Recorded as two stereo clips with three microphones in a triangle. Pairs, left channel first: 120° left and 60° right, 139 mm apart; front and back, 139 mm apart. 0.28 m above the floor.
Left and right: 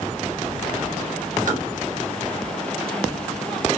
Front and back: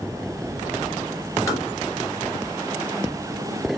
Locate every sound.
1.5 s tapping: 70° right, 1.7 m